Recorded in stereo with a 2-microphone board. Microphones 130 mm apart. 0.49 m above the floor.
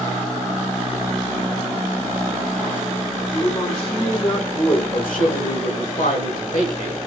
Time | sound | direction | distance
3.3 | a man speaking | 45° left (ahead or behind) | 1.9 m
4.9 | a man speaking | 80° left | 4.5 m